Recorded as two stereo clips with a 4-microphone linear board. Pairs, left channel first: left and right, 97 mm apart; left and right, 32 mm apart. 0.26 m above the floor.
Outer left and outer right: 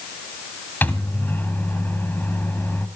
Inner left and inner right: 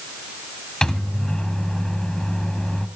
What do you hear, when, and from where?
0.8 s a microwave: 20° left (ahead or behind), 1.3 m